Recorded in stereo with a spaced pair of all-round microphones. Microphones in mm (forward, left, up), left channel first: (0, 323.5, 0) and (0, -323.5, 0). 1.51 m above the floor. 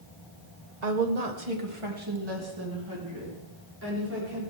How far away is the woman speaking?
About 1.5 m.